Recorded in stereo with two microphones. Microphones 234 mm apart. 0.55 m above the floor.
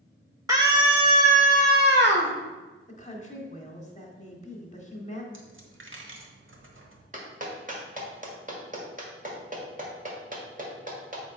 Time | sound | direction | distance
0.5 | a scream | 15° right (ahead or behind) | 1.9 m
2.9 | a woman speaking | 30° left (ahead or behind) | 1.5 m
5.3 | a dropped coin | 55° right (ahead or behind) | 1.1 m
7.1 | a clap | 35° right (ahead or behind) | 1.5 m